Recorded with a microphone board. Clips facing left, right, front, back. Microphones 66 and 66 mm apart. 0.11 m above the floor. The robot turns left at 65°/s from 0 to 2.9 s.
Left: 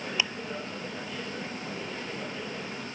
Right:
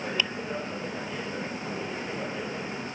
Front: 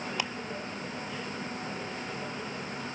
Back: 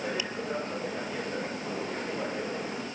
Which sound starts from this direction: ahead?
Ticking, at 0.2 s.